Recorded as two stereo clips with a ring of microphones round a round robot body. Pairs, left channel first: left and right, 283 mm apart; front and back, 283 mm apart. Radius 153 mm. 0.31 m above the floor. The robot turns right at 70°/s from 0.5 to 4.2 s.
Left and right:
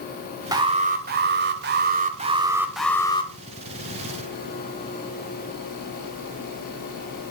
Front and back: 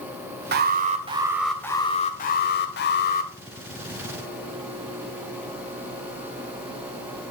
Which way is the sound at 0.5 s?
160° right.